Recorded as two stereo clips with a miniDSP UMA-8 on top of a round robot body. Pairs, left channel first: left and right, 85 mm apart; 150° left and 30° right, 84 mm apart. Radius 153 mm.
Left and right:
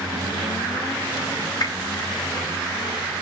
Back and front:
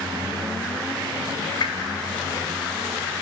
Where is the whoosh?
125° left, 3.5 m.